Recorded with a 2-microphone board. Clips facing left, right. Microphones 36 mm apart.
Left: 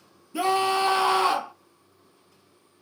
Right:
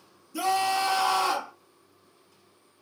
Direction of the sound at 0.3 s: 30° left (ahead or behind).